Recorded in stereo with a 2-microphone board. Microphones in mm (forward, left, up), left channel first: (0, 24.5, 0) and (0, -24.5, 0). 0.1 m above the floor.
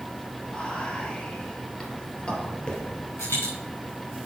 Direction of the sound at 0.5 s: 20° left (ahead or behind).